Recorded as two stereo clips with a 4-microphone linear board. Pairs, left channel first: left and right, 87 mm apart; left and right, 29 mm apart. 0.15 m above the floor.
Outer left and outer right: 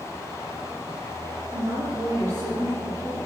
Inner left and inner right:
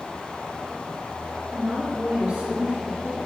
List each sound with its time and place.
1.5 s a woman speaking: 30° right (ahead or behind), 2.5 m